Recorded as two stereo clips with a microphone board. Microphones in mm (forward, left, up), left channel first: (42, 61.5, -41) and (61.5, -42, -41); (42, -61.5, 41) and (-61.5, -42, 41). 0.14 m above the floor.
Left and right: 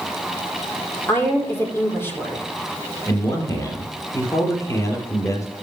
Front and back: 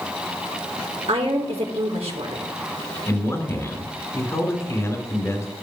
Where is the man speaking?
50° left, 3 m.